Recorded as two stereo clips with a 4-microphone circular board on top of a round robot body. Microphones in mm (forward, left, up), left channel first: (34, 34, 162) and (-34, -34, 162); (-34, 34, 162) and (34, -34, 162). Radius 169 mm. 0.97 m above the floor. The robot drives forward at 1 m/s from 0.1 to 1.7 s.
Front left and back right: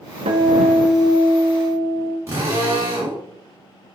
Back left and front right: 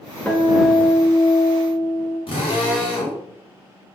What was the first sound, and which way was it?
A guitar, 150° right.